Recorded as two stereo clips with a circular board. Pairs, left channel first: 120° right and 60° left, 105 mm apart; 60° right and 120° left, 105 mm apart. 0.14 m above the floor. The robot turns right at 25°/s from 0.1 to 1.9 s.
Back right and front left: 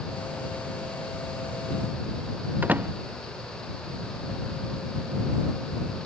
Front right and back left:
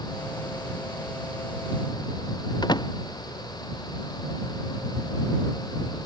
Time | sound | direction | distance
2.6 | a door slam | 15° right | ?